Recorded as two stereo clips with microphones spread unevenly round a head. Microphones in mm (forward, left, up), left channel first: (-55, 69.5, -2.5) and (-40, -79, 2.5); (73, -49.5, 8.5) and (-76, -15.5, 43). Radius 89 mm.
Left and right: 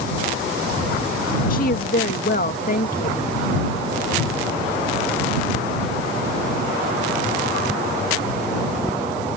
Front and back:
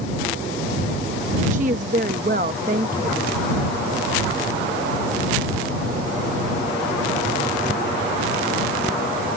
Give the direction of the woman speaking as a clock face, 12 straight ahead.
8 o'clock.